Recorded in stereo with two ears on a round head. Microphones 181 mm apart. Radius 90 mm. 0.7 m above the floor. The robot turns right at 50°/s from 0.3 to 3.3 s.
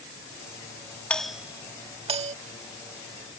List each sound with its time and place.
1.1 s a doorbell: 5° left (ahead or behind); by 2.4 s 35° right (ahead or behind)